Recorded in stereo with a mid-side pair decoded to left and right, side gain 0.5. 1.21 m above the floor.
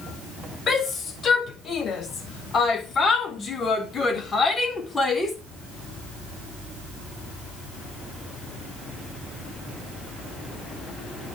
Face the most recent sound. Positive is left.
turn(degrees=25)